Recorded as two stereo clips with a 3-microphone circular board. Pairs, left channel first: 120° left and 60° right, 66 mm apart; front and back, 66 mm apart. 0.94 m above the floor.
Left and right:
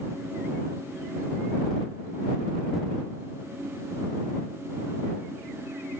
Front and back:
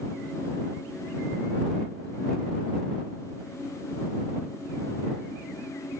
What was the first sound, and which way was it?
Only background noise.